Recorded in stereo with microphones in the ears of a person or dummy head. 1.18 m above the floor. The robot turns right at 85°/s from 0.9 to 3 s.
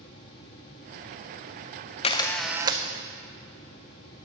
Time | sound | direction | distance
2.0 | a camera shutter | 145° left | 0.5 m